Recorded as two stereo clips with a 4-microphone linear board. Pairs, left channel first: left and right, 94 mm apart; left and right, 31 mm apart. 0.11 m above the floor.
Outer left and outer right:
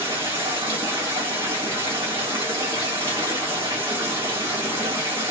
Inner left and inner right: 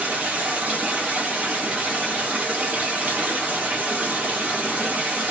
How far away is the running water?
About 1.3 m.